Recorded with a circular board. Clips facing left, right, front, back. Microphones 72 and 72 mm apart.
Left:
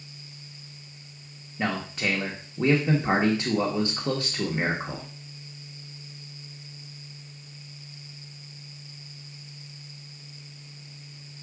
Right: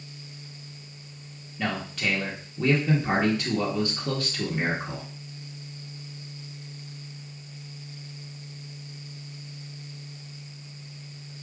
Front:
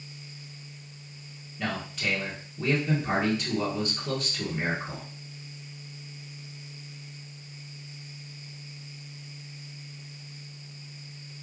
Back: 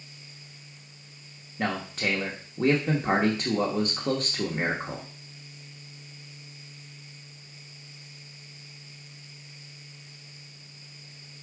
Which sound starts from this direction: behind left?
A man speaking, at 1.6 s.